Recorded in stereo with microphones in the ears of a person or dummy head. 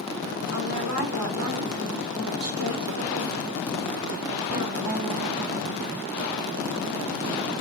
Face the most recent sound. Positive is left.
turn(degrees=-85)